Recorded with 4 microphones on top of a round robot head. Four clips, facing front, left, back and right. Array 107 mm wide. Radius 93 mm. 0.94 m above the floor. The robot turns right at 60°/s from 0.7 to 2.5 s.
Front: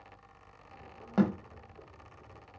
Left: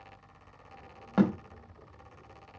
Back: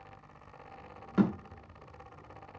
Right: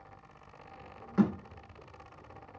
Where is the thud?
65° left, 1.1 m; by 1.3 s 70° left, 1.1 m.